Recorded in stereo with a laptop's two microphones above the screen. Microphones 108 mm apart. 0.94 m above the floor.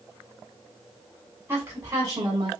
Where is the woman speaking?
25° right (ahead or behind), 3.5 m; by 2.5 s 45° right (ahead or behind), 4 m.